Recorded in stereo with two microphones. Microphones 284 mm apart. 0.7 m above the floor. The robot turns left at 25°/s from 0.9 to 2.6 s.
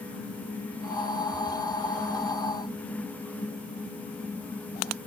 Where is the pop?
I don't hear a pop.